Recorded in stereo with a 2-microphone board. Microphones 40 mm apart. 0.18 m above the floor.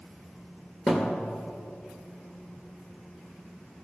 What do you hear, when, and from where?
0.9 s a thud: 25° left (ahead or behind), 1.6 m